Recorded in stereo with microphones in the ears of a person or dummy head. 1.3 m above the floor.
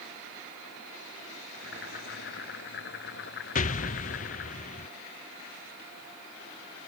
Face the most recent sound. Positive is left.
turn(degrees=40)  # may be behind; listen again after turning